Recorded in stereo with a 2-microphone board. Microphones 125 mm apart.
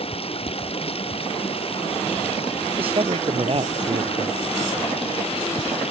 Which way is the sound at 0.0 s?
50° left (ahead or behind).